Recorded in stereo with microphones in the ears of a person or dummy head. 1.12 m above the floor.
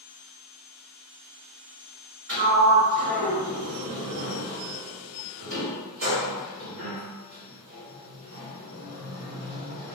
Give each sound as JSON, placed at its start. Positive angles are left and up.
{"t": 2.3, "sound": "a sliding door", "side_deg": -65, "distance_m": 1.5}